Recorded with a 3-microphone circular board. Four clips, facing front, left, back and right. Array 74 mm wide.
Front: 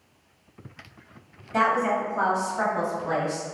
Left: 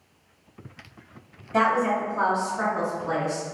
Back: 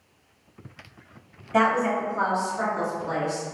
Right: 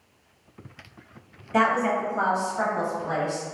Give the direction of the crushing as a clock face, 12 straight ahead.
No crushing in this recording.